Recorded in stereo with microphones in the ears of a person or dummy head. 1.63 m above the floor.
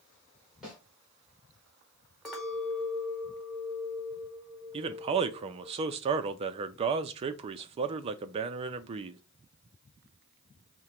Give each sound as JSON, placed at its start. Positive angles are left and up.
{"t": 0.6, "sound": "a snare drum", "side_deg": 0, "distance_m": 1.8}
{"t": 2.2, "sound": "a clink", "side_deg": 5, "distance_m": 1.7}
{"t": 4.7, "sound": "a man speaking", "side_deg": -35, "distance_m": 0.5}